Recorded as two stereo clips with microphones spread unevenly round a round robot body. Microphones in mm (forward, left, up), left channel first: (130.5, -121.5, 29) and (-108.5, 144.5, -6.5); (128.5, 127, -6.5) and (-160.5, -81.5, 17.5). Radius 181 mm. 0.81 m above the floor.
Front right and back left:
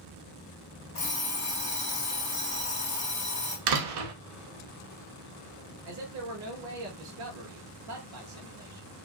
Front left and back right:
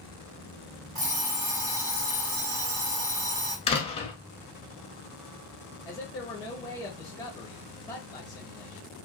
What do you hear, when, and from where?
0.9 s an alarm clock: 120° right, 1.9 m
3.7 s a door slam: 110° left, 0.8 m
5.8 s a man speaking: 110° left, 0.8 m